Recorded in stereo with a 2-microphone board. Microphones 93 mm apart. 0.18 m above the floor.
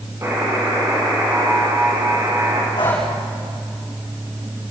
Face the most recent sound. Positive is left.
turn(degrees=50)  # may be behind; listen again after turning